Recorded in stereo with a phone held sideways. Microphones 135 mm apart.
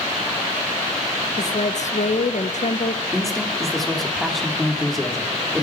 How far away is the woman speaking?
About 1.1 m.